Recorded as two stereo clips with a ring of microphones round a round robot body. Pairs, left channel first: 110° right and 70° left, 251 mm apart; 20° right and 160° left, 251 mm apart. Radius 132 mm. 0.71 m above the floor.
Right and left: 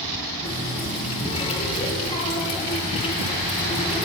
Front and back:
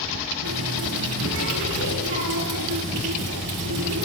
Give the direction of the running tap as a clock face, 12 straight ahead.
6 o'clock.